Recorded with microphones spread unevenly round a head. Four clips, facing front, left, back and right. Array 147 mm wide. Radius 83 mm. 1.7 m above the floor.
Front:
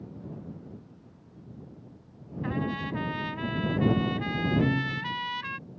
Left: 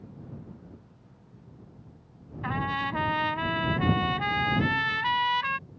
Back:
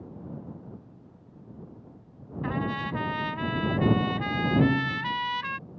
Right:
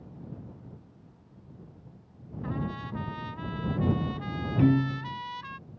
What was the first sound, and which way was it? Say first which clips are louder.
A trumpet: left 5 dB, back 1 dB; 95° left.